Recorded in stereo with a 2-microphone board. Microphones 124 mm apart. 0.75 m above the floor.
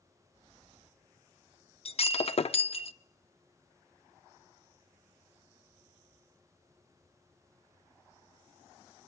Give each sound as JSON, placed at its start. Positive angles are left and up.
{"t": 1.9, "sound": "breaking glass", "side_deg": 50, "distance_m": 0.6}